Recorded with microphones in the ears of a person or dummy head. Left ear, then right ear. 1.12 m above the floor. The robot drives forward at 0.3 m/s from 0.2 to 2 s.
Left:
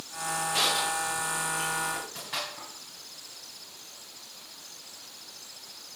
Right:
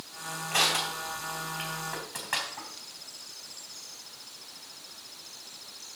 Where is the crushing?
50° right (ahead or behind), 3.5 m; by 2.7 s 45° right (ahead or behind), 3.5 m.